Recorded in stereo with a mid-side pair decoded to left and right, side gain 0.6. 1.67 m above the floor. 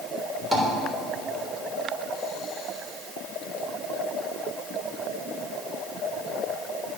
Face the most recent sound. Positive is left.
turn(degrees=-15)